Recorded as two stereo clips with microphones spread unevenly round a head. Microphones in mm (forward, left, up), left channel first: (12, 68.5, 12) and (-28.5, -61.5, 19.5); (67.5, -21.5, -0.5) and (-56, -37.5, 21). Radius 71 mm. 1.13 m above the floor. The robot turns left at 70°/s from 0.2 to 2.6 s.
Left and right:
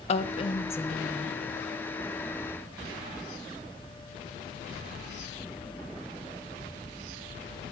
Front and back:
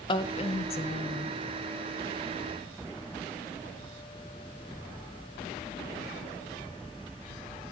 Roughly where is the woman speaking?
Ahead left.